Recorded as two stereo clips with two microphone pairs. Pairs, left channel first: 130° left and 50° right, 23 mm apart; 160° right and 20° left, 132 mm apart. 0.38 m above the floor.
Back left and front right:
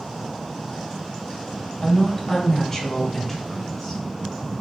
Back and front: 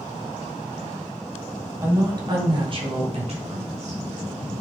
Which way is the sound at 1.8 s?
80° left.